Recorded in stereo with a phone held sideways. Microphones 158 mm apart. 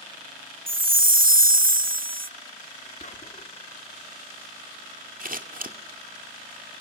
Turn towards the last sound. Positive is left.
turn(degrees=-65)  # may be behind; listen again after turning